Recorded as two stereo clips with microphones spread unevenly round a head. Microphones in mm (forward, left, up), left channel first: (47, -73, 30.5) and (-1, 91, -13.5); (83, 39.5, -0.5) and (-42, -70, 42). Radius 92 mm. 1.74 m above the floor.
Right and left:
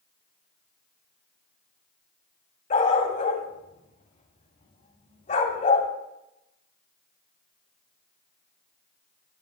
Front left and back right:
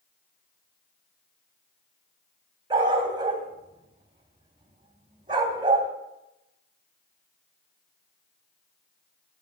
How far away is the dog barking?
About 2.5 m.